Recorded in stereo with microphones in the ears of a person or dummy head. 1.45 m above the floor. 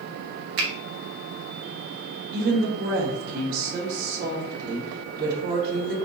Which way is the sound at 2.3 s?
60° right (ahead or behind).